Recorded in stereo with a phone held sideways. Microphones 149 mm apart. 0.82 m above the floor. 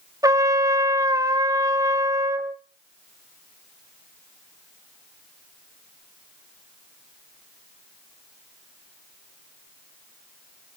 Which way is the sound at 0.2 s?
25° right (ahead or behind).